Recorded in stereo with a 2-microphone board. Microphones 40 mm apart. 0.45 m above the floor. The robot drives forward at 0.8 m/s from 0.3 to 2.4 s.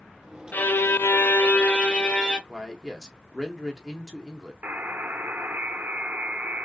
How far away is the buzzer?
About 0.7 m.